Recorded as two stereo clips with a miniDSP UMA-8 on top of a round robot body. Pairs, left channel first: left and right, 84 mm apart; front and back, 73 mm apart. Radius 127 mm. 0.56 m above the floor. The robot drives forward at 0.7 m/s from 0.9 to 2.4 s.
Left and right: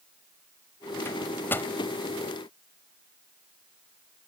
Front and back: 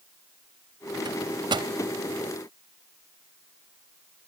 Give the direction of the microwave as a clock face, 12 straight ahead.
7 o'clock.